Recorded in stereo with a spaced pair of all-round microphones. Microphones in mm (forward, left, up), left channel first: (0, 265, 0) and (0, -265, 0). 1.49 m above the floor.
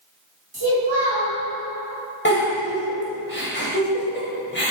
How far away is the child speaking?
About 1.9 m.